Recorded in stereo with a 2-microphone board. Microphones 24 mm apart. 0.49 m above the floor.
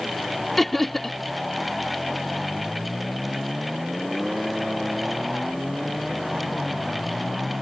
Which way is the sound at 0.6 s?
5° left (ahead or behind).